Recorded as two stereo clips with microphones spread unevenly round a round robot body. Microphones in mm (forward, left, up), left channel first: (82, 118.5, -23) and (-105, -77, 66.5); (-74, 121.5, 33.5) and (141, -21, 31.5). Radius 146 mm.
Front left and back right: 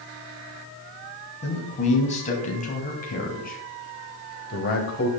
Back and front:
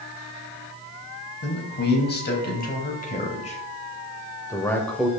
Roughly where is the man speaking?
Left.